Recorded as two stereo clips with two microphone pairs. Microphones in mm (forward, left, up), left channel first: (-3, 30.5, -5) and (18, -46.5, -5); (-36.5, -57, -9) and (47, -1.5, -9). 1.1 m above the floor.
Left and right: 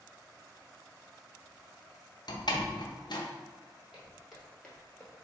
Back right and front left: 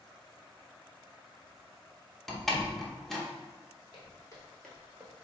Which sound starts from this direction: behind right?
Footsteps, at 3.9 s.